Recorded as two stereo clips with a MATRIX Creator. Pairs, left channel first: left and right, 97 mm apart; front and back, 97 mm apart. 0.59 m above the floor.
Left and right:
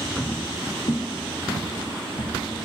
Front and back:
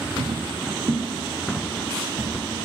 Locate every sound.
0.2 s footsteps: 155° left, 1.4 m; by 2.3 s 110° left, 2.5 m